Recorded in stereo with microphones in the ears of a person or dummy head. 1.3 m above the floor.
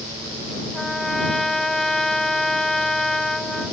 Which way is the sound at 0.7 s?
Centre (ahead or behind).